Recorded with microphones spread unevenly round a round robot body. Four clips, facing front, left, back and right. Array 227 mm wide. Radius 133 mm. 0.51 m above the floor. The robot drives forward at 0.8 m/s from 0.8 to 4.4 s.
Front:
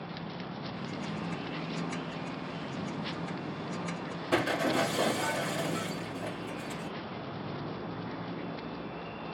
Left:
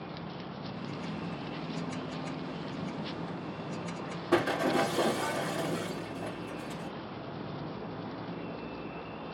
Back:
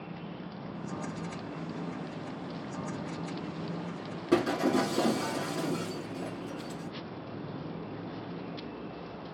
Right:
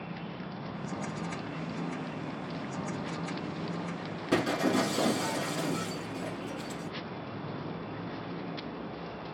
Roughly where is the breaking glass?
Behind.